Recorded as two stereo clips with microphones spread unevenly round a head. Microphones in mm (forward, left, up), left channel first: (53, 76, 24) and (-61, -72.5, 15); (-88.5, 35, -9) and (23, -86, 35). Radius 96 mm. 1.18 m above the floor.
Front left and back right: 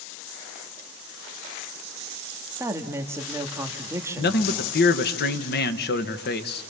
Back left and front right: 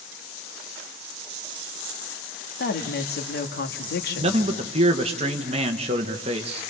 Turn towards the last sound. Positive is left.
turn(degrees=15)